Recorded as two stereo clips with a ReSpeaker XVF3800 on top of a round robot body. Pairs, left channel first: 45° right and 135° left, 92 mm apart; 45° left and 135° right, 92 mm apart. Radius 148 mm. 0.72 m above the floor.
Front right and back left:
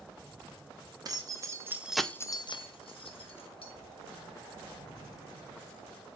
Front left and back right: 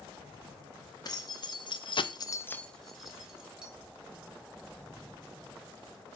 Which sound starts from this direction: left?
Keys jangling, at 1.1 s.